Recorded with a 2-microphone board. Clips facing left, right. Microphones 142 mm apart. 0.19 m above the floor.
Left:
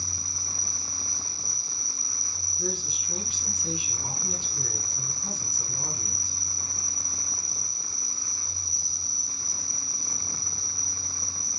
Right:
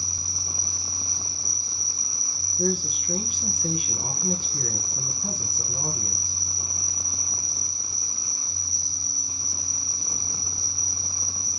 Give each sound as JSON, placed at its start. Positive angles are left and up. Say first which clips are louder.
{"t": 0.0, "sound": "an insect", "louder": "right 1 dB", "side_deg": -35, "distance_m": 4.0}
{"t": 2.6, "sound": "a man speaking", "louder": "right 7 dB", "side_deg": -55, "distance_m": 2.0}